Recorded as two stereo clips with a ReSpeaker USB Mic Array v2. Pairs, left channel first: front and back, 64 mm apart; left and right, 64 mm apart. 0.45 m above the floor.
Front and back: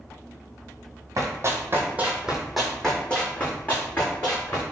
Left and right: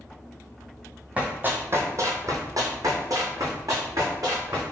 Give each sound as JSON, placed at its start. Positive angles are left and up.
{"t": 1.2, "sound": "running footsteps", "azimuth_deg": -155, "distance_m": 0.9}